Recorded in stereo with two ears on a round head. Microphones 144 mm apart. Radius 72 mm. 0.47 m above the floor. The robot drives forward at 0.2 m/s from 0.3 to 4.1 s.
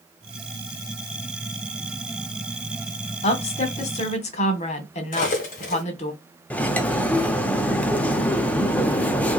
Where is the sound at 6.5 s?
10° left (ahead or behind), 0.5 m.